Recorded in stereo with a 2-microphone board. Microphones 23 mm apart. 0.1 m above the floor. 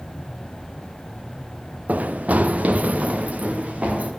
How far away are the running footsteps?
About 0.8 m.